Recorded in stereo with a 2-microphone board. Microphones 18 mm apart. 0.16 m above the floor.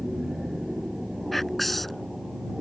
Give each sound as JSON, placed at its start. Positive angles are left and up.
{"t": 0.0, "sound": "an aircraft", "side_deg": -30}
{"t": 1.3, "sound": "whispering", "side_deg": 5}